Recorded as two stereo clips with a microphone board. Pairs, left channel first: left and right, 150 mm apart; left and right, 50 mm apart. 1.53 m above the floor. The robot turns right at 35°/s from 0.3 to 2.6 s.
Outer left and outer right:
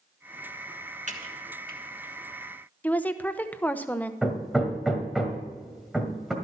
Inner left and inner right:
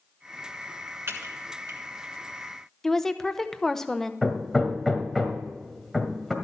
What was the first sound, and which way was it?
Typing on a keyboard, 55° right (ahead or behind).